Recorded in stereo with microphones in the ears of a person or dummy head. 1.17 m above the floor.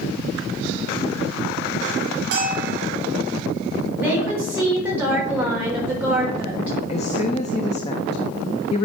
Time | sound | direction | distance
2.3 | a bell | 55° right (ahead or behind) | 2 m
4.0 | a woman speaking | 5° right (ahead or behind) | 4 m
6.9 | a woman speaking | 40° left (ahead or behind) | 0.6 m